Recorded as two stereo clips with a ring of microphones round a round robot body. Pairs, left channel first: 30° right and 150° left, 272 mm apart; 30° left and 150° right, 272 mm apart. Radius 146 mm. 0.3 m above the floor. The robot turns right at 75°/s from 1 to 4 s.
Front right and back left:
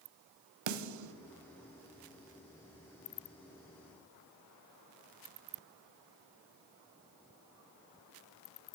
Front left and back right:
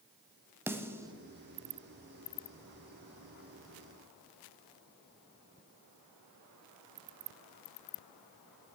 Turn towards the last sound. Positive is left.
turn(degrees=-5)